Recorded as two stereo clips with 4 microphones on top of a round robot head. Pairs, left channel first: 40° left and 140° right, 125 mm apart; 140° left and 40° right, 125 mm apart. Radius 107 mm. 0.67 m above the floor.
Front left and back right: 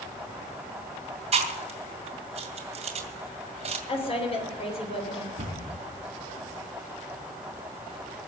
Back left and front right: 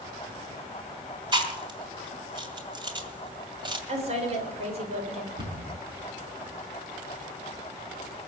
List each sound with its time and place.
1.3 s chewing: 95° right, 2 m
3.9 s a woman speaking: 5° right, 3 m
5.4 s a cupboard door: 90° right, 6 m